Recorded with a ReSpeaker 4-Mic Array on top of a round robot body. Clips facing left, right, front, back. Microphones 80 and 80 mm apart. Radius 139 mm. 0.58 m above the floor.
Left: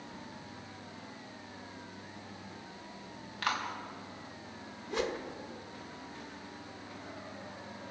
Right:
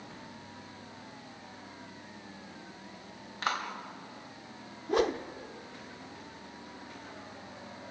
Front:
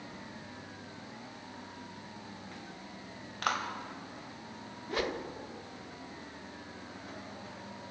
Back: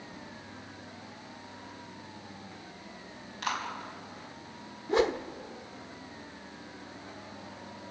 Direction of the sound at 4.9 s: 120° right.